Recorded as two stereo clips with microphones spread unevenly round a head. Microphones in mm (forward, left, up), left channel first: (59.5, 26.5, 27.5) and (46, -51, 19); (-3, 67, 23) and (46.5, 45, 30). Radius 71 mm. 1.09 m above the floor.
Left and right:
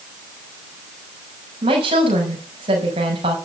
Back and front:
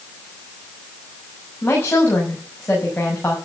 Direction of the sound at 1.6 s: 130° right.